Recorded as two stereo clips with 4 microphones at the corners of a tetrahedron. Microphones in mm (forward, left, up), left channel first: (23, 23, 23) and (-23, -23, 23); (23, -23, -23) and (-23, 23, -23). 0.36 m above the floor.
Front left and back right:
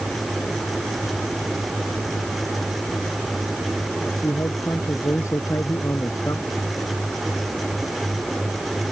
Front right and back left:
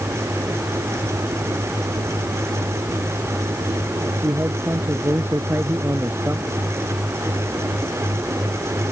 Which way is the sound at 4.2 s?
80° left.